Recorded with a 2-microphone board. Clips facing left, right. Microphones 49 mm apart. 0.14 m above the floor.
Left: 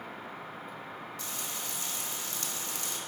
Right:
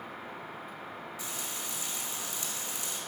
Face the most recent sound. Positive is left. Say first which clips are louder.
# even
turn(degrees=-10)  # may be behind; listen again after turning